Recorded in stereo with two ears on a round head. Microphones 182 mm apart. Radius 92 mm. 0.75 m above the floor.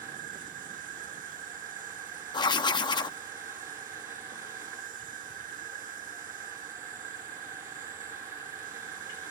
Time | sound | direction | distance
0.0 | an insect | 45° right (ahead or behind) | ?
2.3 | writing | 20° left (ahead or behind) | ?